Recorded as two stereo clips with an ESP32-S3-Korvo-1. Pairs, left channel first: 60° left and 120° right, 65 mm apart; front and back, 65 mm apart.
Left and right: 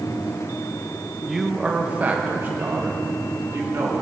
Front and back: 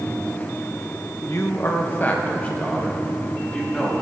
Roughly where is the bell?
No bell in this recording.